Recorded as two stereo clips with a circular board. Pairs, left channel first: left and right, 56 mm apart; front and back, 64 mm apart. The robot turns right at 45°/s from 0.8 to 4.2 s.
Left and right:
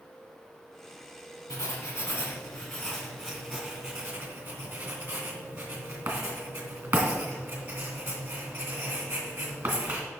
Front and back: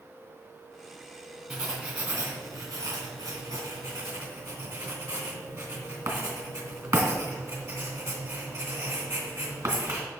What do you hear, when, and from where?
1.5 s writing: 95° left, 2.5 m; by 10.1 s 145° right, 2.5 m